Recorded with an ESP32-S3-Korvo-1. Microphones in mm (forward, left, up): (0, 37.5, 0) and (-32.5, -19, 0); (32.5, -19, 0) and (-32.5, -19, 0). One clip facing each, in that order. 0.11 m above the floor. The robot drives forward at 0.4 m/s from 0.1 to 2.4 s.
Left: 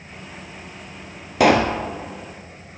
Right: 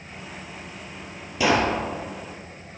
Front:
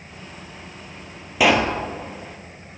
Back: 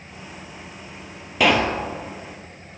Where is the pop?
85° left, 1.2 m; by 1.8 s 90° left, 1.2 m.